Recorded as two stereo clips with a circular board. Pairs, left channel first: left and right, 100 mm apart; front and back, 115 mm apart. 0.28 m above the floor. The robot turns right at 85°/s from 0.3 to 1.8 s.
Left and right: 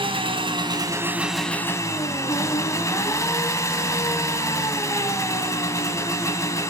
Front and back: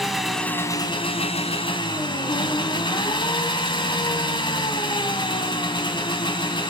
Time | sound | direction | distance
0.0 | an engine running | 90° right | 1.8 m